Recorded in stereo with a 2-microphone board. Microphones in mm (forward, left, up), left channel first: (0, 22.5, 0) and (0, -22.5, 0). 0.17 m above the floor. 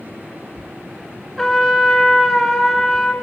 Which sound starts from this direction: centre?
A trumpet, at 1.4 s.